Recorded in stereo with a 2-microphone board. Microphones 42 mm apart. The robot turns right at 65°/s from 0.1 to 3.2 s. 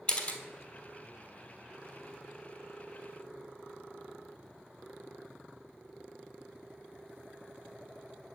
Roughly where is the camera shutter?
Left.